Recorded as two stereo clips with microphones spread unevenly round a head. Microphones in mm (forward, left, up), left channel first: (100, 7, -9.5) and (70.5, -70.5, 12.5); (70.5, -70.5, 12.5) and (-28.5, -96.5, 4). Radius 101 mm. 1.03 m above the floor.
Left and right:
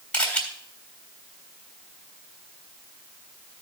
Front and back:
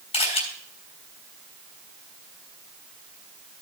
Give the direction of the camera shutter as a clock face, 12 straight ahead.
12 o'clock.